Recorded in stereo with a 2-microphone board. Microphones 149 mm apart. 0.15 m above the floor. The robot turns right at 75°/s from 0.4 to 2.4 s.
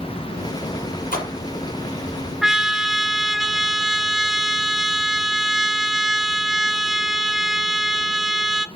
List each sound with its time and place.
1.1 s a splash: 70° left (ahead or behind), 4 m
2.4 s a trumpet: 5° right (ahead or behind), 0.5 m